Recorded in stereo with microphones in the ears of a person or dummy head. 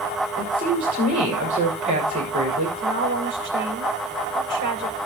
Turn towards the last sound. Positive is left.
turn(degrees=-70)  # may be behind; listen again after turning